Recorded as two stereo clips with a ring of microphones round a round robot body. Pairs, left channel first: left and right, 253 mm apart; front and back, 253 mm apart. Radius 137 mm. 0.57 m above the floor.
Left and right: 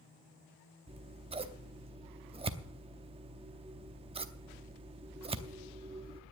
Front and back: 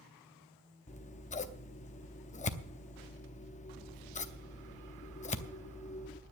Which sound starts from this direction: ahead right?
Scissors, at 0.9 s.